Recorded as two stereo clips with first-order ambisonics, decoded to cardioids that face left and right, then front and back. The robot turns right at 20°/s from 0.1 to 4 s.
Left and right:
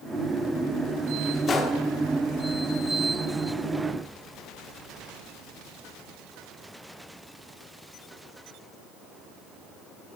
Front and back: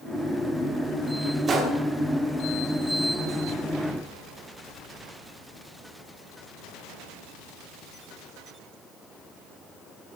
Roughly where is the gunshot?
Behind left.